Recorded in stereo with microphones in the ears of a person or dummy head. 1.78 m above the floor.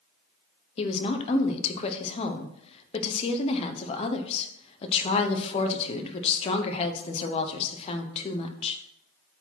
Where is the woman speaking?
35° left (ahead or behind), 1.1 m.